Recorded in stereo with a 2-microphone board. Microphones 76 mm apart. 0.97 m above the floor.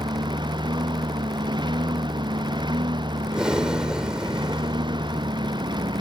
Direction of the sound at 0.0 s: 90° right.